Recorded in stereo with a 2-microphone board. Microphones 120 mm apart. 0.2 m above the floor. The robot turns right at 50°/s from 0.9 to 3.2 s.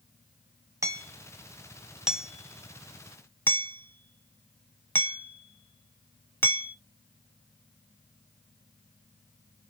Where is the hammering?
25° right (ahead or behind), 0.7 m; by 6.8 s 20° left (ahead or behind), 0.7 m.